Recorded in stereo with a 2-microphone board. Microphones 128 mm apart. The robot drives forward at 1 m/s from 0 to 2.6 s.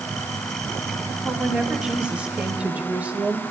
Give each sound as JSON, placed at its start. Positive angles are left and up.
{"t": 1.2, "sound": "a woman speaking", "side_deg": -5, "distance_m": 2.5}